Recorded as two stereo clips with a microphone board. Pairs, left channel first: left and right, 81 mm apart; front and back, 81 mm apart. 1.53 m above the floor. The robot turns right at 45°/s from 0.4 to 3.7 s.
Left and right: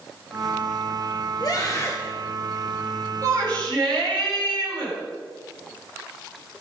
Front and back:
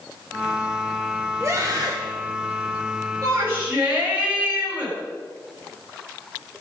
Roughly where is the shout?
Behind right.